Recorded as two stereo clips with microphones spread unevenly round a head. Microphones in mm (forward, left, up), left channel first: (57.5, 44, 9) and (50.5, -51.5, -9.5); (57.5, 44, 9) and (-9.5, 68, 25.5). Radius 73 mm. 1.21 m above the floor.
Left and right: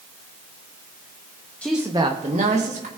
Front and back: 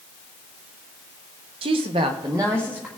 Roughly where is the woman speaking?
Behind.